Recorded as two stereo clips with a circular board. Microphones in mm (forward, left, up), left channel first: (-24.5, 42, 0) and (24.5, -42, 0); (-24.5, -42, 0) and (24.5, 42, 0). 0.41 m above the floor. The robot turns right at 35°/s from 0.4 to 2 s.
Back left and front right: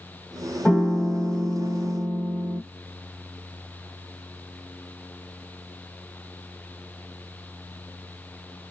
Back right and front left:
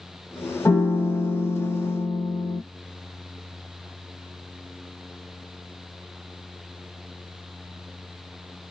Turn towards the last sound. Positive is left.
turn(degrees=-110)